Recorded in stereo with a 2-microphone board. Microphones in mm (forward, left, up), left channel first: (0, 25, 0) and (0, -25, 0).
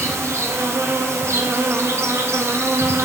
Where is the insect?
65° right (ahead or behind), 1.3 m.